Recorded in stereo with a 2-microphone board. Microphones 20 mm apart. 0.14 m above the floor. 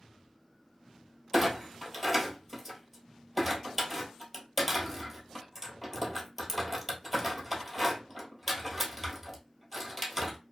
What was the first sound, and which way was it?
A clunk, 5° left (ahead or behind).